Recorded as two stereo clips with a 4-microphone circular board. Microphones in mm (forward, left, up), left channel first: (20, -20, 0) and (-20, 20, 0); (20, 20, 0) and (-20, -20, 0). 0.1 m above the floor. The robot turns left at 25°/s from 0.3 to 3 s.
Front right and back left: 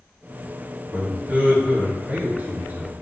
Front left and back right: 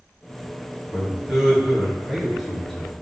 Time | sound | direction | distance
0.9 | a man speaking | 170° left | 1.4 m